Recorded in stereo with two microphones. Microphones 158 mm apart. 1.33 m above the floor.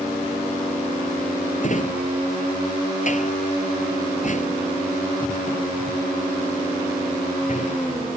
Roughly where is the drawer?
Left.